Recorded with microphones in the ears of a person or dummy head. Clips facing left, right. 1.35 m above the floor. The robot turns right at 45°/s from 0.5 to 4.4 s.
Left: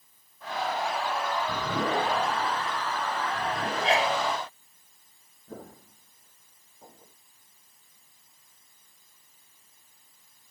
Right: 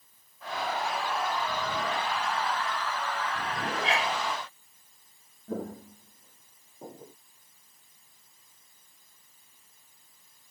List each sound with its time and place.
3.8 s a sneeze: 35° left (ahead or behind); by 4.2 s 20° left (ahead or behind)
5.5 s footsteps: 45° right (ahead or behind); by 7.2 s 35° right (ahead or behind)